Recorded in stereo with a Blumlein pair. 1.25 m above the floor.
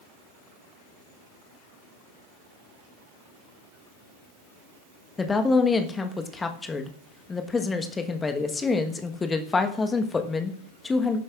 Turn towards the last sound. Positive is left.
turn(degrees=15)